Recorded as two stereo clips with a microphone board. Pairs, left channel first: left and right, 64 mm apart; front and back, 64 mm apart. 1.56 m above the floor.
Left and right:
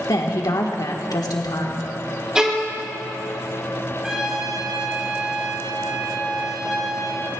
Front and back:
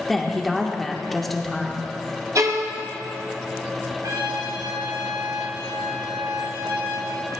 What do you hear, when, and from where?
0.1 s a woman speaking: 85° left, 1.7 m
2.4 s a violin: 170° right, 1.2 m
4.0 s a trumpet: 165° right, 2.5 m